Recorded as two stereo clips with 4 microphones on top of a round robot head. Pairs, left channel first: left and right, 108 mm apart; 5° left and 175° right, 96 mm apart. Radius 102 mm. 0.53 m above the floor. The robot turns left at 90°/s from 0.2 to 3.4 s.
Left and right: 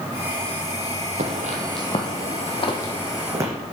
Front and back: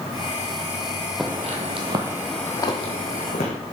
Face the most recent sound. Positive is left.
turn(degrees=-30)